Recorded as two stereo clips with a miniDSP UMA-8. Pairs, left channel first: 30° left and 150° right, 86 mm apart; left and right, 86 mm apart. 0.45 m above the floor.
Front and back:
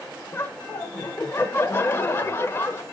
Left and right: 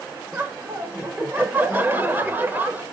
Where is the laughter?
25° right, 1.3 m.